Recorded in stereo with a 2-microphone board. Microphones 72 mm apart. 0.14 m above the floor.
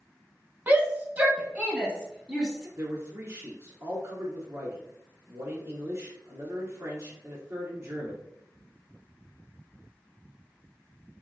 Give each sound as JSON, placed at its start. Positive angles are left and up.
{"t": 0.7, "sound": "a shout", "side_deg": -25, "distance_m": 1.1}
{"t": 2.8, "sound": "a man speaking", "side_deg": -45, "distance_m": 1.6}